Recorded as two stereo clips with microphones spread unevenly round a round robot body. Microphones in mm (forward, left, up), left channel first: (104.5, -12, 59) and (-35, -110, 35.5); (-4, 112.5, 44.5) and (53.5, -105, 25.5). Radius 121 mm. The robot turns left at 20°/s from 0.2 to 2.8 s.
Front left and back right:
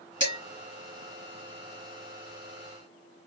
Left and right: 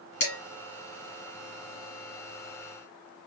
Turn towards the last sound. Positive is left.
turn(degrees=100)